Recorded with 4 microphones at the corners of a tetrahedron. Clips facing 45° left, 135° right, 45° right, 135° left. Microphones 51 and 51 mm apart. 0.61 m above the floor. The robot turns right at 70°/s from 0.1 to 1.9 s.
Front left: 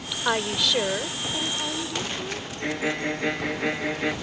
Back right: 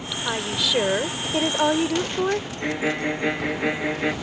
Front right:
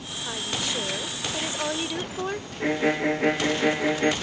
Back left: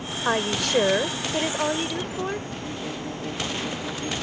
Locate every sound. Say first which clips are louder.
0.2 s a woman speaking: front left 2 dB, back left 7 dB; 110° left; by 2.5 s 135° right
2.6 s a violin: front left 1 dB, front right 9 dB; 55° right